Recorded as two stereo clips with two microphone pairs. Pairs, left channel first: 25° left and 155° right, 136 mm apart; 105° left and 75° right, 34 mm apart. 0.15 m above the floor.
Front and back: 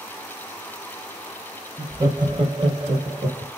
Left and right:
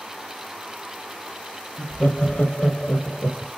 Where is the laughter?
145° left, 3 m; by 3.5 s 165° left, 4.5 m.